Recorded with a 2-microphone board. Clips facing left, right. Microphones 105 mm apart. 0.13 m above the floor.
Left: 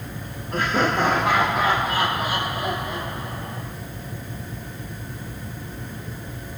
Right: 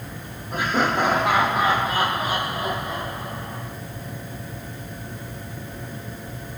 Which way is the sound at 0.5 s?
10° right (ahead or behind).